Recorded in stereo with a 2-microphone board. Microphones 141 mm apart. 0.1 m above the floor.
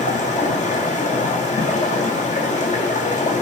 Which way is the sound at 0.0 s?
60° left (ahead or behind).